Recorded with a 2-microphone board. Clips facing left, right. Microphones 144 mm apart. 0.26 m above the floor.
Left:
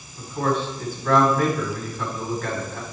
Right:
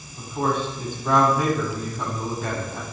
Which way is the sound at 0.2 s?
15° right (ahead or behind).